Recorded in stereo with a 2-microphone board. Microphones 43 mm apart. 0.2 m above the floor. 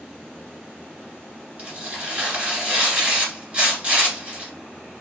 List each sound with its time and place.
1.6 s tearing paper: 25° right (ahead or behind), 1.8 m